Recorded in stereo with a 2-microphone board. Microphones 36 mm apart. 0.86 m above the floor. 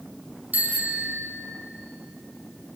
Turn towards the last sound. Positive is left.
turn(degrees=-55)  # may be behind; listen again after turning